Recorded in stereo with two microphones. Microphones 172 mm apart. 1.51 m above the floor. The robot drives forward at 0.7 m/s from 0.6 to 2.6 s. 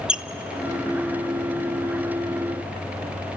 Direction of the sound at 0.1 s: 5° right (ahead or behind).